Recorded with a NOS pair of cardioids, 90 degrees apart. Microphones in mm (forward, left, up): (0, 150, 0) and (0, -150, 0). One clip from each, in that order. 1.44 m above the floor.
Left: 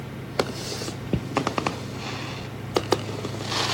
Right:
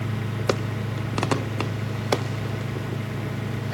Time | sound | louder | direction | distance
0.0 | a fan | even | 45° right | 1.2 m